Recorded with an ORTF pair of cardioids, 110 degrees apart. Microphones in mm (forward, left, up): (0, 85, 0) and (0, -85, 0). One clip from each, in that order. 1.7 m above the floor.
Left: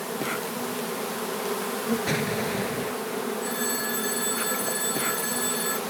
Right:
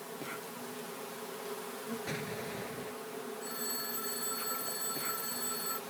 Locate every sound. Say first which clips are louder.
0.0 s an insect: left 13 dB; 65° left
2.1 s an explosion: left 12 dB; 60° left
3.4 s a phone ringing: left 11 dB; 45° left